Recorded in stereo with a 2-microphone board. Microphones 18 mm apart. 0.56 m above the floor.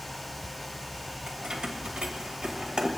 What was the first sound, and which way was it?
Keys jangling, 75° right (ahead or behind).